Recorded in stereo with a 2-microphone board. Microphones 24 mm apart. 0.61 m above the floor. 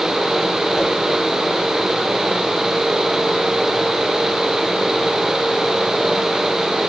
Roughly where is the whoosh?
Centre.